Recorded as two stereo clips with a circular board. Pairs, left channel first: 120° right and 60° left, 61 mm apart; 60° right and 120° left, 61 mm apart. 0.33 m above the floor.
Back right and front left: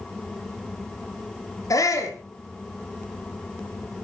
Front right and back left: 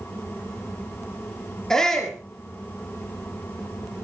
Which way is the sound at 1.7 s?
145° right.